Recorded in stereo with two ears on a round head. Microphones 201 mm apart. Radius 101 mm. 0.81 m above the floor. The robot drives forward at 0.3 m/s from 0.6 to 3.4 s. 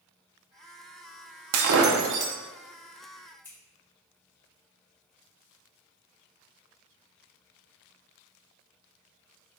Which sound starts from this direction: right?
Breaking glass, at 1.5 s.